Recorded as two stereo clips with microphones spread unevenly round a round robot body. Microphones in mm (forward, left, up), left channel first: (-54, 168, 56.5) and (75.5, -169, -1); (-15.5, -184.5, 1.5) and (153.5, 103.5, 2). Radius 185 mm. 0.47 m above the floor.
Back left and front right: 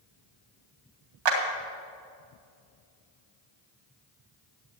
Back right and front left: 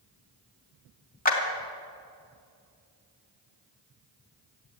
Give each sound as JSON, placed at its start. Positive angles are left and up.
{"t": 1.2, "sound": "a clap", "azimuth_deg": -55, "distance_m": 3.0}